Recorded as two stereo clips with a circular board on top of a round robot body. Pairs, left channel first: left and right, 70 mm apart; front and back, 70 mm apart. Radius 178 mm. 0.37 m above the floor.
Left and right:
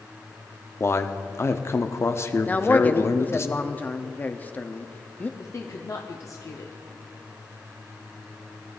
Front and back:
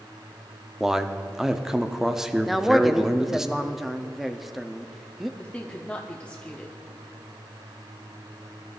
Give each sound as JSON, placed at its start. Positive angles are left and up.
{"t": 0.8, "sound": "a man speaking", "azimuth_deg": 100, "distance_m": 1.0}
{"t": 2.5, "sound": "a man speaking", "azimuth_deg": 95, "distance_m": 0.9}
{"t": 5.4, "sound": "a woman speaking", "azimuth_deg": 70, "distance_m": 1.1}